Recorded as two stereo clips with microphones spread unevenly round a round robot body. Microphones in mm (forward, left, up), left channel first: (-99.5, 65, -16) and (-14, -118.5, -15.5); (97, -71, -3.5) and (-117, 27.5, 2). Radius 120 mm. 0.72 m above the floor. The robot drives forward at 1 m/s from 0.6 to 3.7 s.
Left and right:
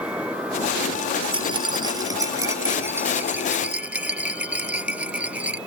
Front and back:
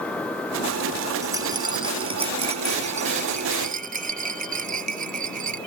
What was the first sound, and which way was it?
A rattle, 130° right.